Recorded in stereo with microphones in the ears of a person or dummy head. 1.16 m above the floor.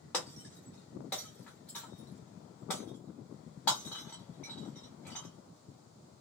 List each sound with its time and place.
0.1 s breaking glass: 5° left (ahead or behind), 0.6 m